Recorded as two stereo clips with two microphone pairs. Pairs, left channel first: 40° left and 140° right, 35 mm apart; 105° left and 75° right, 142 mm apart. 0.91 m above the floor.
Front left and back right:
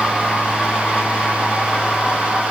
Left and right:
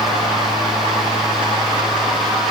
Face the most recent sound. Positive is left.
No sound to turn to.